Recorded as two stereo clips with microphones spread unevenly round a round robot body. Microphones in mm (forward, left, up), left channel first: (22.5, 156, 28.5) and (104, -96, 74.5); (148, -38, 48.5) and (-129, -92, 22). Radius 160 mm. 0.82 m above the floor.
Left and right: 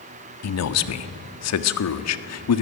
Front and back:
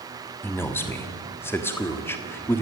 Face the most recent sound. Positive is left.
turn(degrees=95)